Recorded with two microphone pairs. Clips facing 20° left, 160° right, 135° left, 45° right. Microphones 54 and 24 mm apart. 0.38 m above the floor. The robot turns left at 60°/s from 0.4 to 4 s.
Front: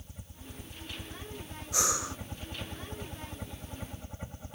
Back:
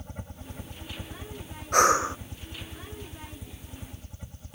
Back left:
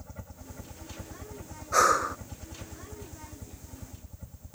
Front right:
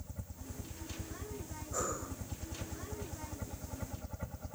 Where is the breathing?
160° left; by 2.2 s 135° left.